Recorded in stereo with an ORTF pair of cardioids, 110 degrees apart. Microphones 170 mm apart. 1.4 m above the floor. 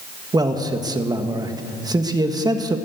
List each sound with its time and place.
0.3 s a man speaking: 25° right, 1.5 m